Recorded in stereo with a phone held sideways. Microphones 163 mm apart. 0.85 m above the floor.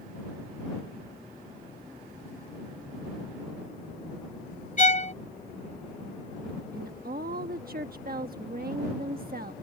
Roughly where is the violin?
Left.